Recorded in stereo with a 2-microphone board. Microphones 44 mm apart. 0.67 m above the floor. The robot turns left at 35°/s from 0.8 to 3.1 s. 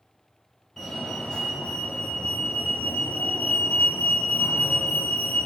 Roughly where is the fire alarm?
Behind.